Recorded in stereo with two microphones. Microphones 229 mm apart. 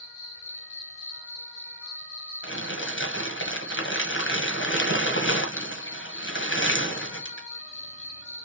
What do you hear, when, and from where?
0.0 s an insect: 10° right (ahead or behind), 2 m
2.4 s crumpling: 60° left (ahead or behind), 1.0 m